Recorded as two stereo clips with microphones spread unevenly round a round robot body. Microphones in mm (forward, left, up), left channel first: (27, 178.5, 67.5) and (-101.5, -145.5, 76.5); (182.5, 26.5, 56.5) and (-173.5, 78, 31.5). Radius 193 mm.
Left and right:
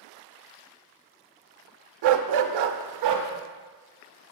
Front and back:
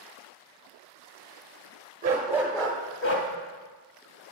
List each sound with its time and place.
2.0 s a dog barking: 120° right, 0.6 m; by 3.3 s 60° right, 0.7 m